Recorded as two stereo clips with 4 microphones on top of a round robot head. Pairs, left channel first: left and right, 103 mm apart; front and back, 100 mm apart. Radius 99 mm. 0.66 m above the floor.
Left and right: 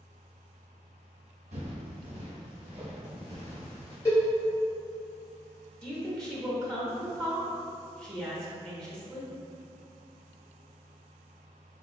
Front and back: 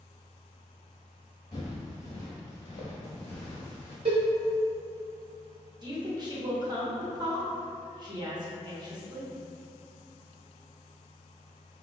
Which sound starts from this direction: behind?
A woman speaking, at 5.8 s.